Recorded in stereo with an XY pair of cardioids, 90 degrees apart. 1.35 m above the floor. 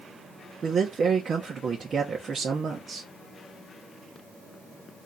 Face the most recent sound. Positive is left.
turn(degrees=-55)